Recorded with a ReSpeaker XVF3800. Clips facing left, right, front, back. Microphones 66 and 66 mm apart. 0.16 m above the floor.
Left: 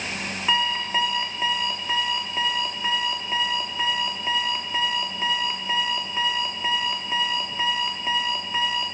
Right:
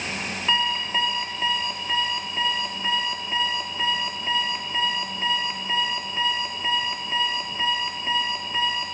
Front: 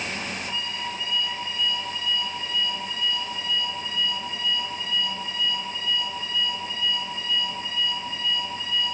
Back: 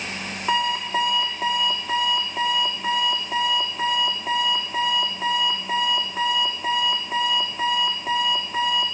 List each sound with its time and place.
0.5 s an alarm clock: 165° left, 4 m